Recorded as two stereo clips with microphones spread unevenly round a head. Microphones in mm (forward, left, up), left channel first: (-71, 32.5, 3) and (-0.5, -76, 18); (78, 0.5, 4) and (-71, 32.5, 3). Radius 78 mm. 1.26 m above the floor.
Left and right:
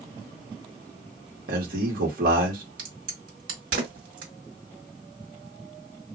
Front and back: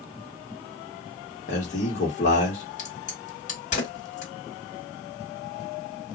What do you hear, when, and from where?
1.5 s a man speaking: 55° right, 1.5 m
2.8 s a crack: 55° right, 1.8 m